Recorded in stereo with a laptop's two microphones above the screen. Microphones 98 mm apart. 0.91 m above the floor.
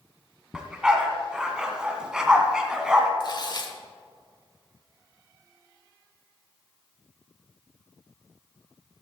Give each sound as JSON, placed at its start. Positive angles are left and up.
{"t": 0.5, "sound": "a dog barking", "side_deg": -10, "distance_m": 1.8}
{"t": 3.2, "sound": "tearing paper", "side_deg": 50, "distance_m": 1.3}